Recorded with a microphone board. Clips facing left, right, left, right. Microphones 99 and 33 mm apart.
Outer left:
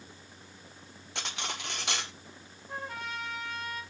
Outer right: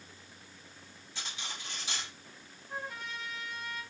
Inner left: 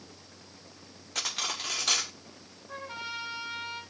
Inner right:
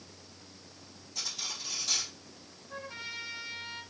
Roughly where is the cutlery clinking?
Left.